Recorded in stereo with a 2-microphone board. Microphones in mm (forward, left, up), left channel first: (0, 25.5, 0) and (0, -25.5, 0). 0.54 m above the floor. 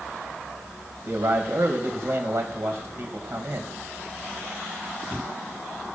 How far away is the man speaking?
About 3 m.